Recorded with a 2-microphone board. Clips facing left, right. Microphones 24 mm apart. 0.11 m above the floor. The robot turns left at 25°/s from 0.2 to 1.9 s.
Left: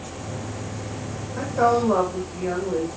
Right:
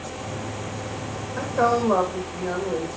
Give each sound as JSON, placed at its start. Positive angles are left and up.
{"t": 1.4, "sound": "a woman speaking", "side_deg": -10, "distance_m": 5.0}